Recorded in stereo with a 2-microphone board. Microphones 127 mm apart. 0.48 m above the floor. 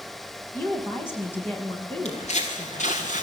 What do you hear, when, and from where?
0.5 s a woman speaking: 20° left (ahead or behind), 5 m; by 3.0 s 15° left (ahead or behind), 8 m
2.0 s footsteps: 60° left (ahead or behind), 5 m; by 3.2 s 75° left (ahead or behind), 4 m